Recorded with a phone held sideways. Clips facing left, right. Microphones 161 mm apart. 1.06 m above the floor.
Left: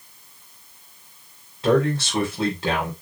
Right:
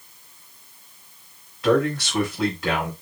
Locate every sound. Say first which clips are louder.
1.6 s a man speaking: even; 30° left (ahead or behind), 5 m